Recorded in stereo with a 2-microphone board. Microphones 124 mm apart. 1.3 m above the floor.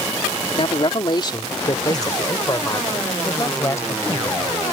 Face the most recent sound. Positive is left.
turn(degrees=20)  # may be behind; listen again after turning